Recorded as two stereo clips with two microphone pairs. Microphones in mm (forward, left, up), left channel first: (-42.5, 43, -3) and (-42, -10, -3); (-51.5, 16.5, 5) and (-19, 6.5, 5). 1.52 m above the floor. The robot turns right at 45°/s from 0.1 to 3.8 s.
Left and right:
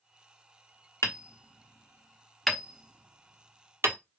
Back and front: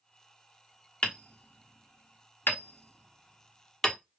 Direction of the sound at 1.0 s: 110° left.